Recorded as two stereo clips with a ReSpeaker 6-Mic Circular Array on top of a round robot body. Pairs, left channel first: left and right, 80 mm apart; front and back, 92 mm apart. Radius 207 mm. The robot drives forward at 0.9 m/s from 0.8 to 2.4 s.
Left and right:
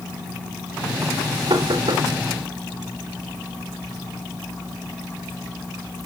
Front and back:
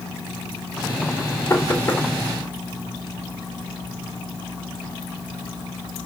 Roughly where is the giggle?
No giggle in this recording.